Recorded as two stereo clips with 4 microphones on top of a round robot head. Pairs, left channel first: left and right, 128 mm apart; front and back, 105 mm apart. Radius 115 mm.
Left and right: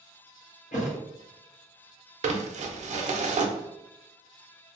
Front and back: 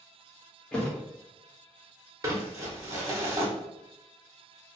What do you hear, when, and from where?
0.7 s a thud: 75° left, 0.5 m
2.2 s crumpling: 120° right, 0.5 m